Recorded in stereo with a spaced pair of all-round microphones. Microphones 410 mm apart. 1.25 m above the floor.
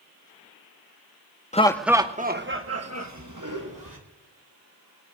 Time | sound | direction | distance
1.5 | laughter | 15° left (ahead or behind) | 0.8 m